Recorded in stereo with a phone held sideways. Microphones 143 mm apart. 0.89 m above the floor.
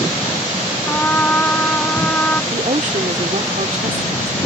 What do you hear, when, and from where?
0.9 s a trumpet: 15° left (ahead or behind)
2.5 s a woman speaking: 60° right (ahead or behind)